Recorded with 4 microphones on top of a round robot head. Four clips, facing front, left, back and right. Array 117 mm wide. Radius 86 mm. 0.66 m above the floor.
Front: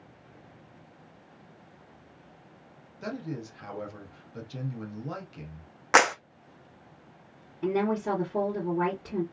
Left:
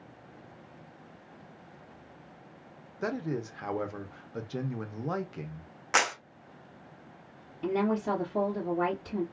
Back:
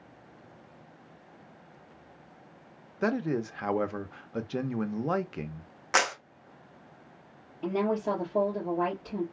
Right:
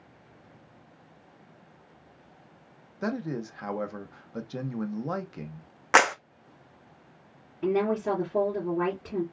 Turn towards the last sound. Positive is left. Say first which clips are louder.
# right 3 dB, front 1 dB
turn(degrees=-60)